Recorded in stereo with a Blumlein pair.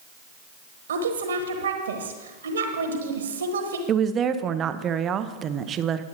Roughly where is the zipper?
No zipper in this recording.